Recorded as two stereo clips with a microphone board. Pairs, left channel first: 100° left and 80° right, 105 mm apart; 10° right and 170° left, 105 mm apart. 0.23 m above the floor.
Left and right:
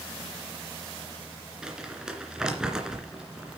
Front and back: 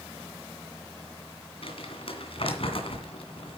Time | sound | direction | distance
1.6 | crumpling | 5° left | 2 m